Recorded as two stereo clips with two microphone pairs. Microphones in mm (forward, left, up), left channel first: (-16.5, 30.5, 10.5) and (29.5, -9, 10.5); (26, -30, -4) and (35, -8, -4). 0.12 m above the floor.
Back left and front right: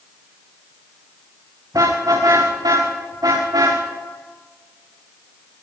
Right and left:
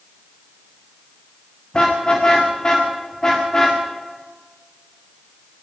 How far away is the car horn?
About 7 m.